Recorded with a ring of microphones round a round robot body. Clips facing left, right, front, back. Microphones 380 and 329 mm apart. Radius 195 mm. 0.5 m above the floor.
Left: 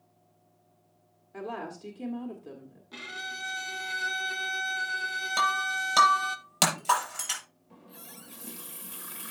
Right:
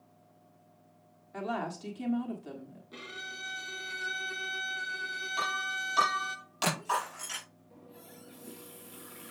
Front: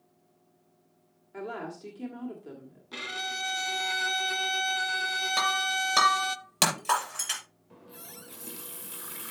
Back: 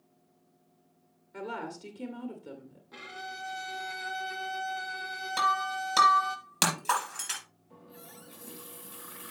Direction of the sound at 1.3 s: 95° right.